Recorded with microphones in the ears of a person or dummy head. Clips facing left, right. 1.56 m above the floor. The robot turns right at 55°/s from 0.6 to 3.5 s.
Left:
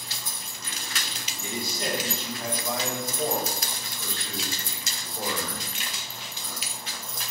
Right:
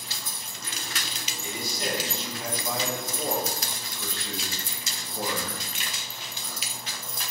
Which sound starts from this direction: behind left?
A man speaking, at 1.4 s.